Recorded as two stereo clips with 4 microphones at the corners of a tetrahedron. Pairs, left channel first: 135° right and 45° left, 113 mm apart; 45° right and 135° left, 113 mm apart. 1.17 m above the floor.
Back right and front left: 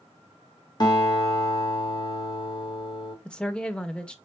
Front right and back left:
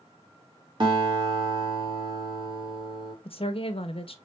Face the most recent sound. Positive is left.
turn(degrees=-55)